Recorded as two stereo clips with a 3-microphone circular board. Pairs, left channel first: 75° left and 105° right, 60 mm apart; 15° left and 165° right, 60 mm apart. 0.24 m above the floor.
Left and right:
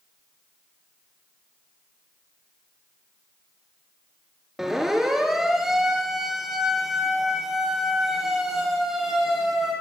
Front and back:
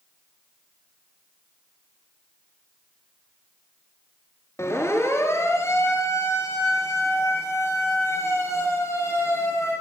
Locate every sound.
4.6 s a siren: 20° right, 4 m